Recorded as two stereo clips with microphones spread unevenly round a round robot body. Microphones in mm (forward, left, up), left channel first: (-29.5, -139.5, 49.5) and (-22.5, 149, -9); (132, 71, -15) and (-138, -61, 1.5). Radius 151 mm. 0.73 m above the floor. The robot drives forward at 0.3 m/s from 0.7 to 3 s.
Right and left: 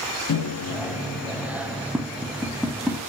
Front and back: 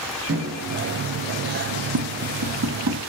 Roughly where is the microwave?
Behind right.